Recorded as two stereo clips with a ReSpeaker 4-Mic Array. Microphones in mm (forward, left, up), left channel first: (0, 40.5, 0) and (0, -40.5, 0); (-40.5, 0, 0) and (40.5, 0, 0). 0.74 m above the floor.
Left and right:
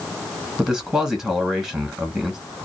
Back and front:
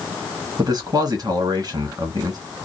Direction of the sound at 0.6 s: 10° right.